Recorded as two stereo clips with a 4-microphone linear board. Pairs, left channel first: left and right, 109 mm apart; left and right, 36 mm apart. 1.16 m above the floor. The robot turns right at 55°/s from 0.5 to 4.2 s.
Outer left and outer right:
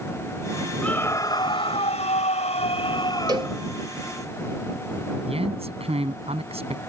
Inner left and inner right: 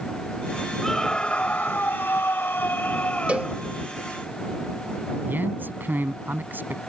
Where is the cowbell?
40° right (ahead or behind); by 3.6 s 55° right (ahead or behind).